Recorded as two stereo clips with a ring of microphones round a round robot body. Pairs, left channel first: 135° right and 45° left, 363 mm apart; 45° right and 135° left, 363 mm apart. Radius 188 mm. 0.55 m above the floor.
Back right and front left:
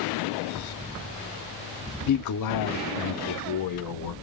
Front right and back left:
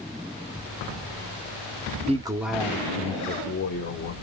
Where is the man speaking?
155° right, 1.0 m; by 4.1 s 100° right, 1.8 m.